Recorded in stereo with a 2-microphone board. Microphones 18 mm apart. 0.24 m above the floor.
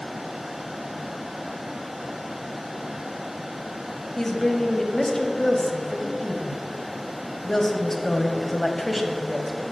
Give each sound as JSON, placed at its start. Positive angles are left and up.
{"t": 4.2, "sound": "a woman speaking", "side_deg": 20, "distance_m": 1.0}